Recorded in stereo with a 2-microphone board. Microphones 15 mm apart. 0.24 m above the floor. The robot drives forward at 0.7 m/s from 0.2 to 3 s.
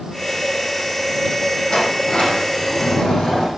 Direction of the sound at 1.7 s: 80° left.